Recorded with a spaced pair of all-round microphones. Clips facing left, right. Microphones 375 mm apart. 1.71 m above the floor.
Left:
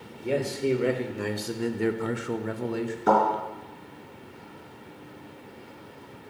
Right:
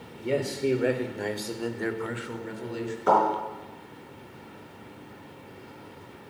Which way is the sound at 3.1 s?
35° left (ahead or behind).